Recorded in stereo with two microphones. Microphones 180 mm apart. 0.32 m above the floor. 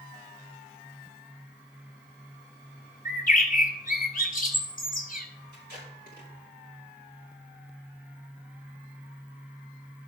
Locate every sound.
3.0 s a bird: 50° left (ahead or behind), 1.1 m
5.5 s tape being pulled: 60° left (ahead or behind), 4.5 m